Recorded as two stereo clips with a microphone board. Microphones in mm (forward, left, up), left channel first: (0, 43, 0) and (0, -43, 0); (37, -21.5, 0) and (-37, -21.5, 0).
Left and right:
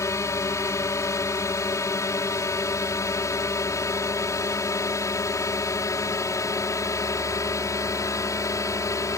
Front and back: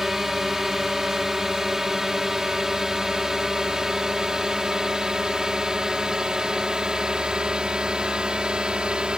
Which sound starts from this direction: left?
A drone, at 0.0 s.